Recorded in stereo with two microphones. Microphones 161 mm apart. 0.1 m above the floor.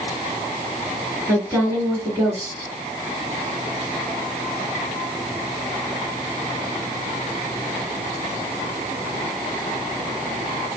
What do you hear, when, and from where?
1.3 s a woman speaking: 15° right (ahead or behind), 1.8 m